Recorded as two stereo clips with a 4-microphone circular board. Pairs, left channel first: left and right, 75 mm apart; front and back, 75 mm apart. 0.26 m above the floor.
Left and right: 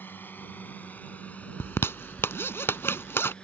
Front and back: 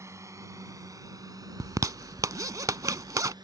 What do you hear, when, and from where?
0.0 s a drone: 145° left; by 3.5 s 165° left
1.6 s a zipper: 145° left